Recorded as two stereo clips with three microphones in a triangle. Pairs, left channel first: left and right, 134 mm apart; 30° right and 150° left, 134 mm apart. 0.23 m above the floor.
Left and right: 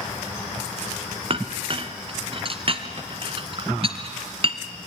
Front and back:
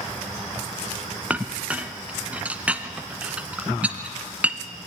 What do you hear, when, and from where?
1.3 s a clink: 130° right, 1.3 m